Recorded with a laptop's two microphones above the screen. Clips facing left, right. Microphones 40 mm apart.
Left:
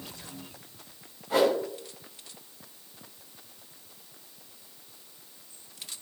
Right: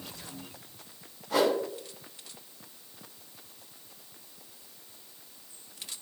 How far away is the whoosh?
About 3.5 m.